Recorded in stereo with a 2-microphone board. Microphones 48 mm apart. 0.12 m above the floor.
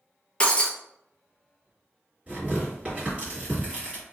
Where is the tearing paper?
25° right (ahead or behind), 1.9 m.